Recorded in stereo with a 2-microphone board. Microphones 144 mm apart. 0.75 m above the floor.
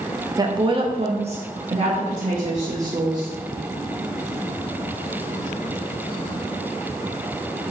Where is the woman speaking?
25° right (ahead or behind), 0.6 m; by 3.3 s 35° right (ahead or behind), 1.4 m.